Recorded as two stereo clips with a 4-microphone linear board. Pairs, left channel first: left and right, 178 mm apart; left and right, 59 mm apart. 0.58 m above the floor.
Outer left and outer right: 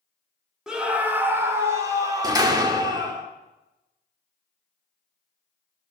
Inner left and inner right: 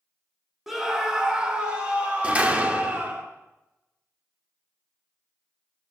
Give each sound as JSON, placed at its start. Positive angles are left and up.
{"t": 0.7, "sound": "a scream", "side_deg": -5, "distance_m": 1.7}
{"t": 2.2, "sound": "a door slam", "side_deg": -20, "distance_m": 1.1}